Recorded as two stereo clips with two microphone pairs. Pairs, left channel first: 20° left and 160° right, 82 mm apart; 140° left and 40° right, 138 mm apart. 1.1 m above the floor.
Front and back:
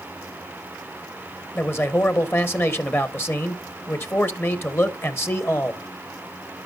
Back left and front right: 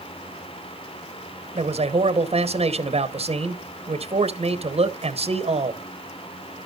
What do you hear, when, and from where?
1.6 s a man speaking: 30° right, 0.9 m